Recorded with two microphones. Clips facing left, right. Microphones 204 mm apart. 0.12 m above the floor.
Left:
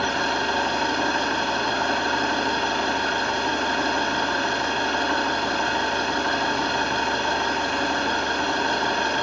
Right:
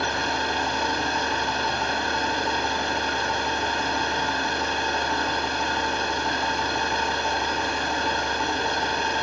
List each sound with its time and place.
0.0 s an engine running: 75° left (ahead or behind), 6 m